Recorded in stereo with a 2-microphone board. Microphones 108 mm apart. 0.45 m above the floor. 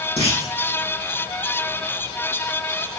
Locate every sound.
0.2 s a clunk: 60° left (ahead or behind), 4 m